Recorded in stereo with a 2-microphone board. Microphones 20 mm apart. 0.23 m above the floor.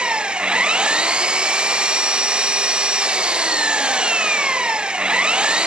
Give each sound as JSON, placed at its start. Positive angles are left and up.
{"t": 0.0, "sound": "an engine running", "side_deg": -55}